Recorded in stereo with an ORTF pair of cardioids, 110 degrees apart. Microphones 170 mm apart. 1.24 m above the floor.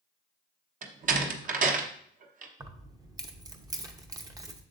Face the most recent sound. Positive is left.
turn(degrees=-20)